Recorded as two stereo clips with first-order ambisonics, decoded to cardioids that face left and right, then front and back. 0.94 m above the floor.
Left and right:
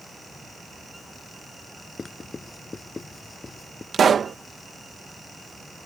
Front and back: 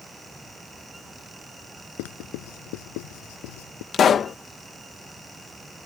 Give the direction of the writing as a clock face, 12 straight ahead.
12 o'clock.